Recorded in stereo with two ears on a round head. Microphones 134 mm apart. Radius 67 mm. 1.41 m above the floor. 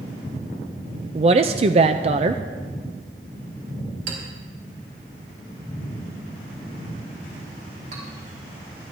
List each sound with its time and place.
1.1 s a woman speaking: 40° right (ahead or behind), 0.5 m
4.1 s a clink: 55° right (ahead or behind), 4.5 m